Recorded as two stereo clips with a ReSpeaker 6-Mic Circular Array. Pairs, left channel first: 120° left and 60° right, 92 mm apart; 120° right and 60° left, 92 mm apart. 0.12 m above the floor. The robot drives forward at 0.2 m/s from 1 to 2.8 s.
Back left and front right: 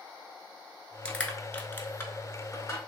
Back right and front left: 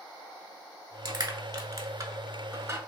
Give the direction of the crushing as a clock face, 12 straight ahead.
10 o'clock.